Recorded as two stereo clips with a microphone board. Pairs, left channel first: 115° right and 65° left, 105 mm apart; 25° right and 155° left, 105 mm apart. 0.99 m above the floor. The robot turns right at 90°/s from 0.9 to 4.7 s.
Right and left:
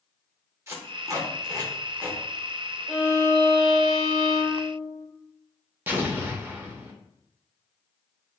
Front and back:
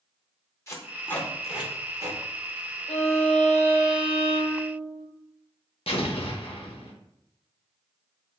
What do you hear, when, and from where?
0.7 s tape being pulled: 20° left, 0.7 m; by 2.2 s 140° left, 0.7 m
2.9 s a violin: 25° right, 1.2 m; by 5.1 s 140° left, 1.2 m
5.9 s an explosion: 5° right, 0.5 m